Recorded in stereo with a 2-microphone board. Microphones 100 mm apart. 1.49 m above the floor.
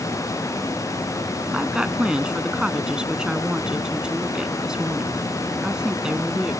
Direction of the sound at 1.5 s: 10° right (ahead or behind).